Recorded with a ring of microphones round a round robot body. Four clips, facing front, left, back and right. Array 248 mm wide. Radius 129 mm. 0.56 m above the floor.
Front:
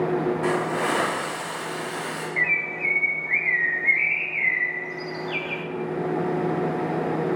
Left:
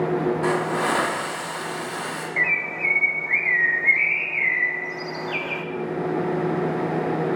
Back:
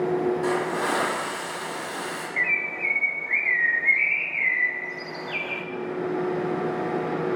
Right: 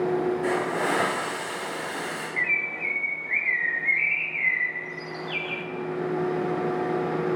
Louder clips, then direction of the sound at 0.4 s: Left 3 dB, front 1 dB; 80° left.